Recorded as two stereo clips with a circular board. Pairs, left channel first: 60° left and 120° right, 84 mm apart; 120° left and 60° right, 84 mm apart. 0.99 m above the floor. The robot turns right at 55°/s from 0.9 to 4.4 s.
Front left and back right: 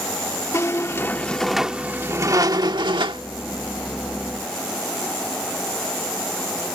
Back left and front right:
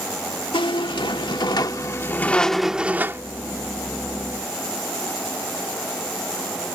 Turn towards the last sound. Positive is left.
turn(degrees=-50)